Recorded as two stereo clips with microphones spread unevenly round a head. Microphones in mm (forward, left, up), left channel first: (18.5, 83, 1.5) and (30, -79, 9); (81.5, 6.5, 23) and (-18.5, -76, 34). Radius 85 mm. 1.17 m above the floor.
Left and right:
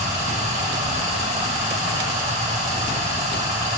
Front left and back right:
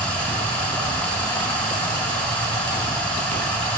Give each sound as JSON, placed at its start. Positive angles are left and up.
{"t": 0.0, "sound": "running water", "azimuth_deg": -40, "distance_m": 3.0}